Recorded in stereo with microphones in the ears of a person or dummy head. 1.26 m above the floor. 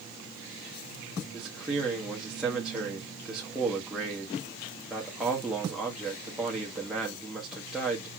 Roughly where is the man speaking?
Centre.